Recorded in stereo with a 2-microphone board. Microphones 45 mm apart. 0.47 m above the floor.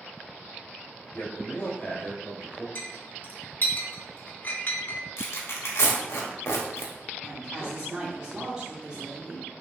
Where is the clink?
45° left (ahead or behind), 0.7 m.